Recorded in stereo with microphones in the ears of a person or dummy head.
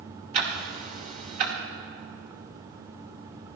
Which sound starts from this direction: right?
Ticking, at 0.3 s.